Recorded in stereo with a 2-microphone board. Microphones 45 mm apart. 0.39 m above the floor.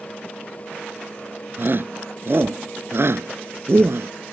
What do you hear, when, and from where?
1.6 s a shout: 50° right (ahead or behind); by 4.1 s 70° right (ahead or behind)